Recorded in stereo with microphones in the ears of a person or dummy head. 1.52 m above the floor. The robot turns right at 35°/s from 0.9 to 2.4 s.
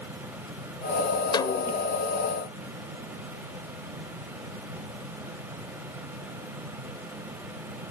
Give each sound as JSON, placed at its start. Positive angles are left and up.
{"t": 1.3, "sound": "a snare drum", "side_deg": 25}